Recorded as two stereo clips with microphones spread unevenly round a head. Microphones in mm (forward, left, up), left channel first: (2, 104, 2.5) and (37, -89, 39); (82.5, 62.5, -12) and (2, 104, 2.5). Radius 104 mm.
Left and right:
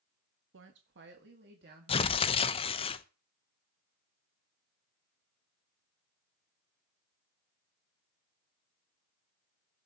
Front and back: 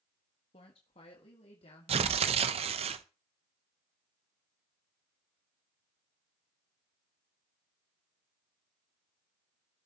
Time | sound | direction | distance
0.5 | a woman speaking | 55° right | 1.3 m
1.9 | tearing paper | 160° left | 0.6 m